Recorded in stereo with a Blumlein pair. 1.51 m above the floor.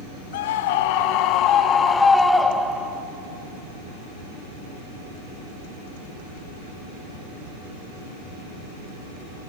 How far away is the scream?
About 1.8 m.